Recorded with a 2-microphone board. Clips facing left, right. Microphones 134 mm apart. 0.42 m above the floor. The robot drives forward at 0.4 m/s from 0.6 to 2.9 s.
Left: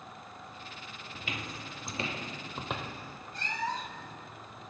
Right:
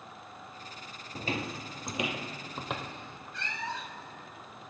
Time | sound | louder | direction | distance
1.1 | footsteps | right 7 dB | 40° right (ahead or behind) | 0.7 m
3.3 | a cat meowing | left 3 dB | 40° left (ahead or behind) | 0.6 m